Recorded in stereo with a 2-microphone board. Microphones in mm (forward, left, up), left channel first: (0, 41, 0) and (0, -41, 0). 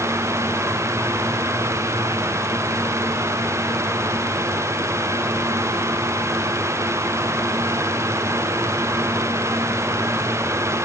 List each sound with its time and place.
Only background noise.